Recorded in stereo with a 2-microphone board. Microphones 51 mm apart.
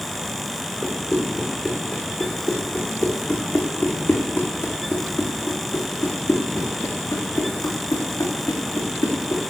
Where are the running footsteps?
15° left (ahead or behind), 4 m; by 9.4 s 80° left, 4.5 m.